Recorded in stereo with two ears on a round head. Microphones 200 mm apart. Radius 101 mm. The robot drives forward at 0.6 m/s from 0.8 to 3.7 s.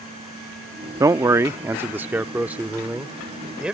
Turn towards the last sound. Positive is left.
turn(degrees=-5)  # may be behind; listen again after turning